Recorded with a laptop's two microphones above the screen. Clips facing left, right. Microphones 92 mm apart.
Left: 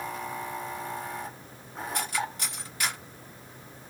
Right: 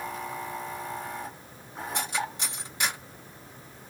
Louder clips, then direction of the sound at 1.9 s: Even; 25° right (ahead or behind).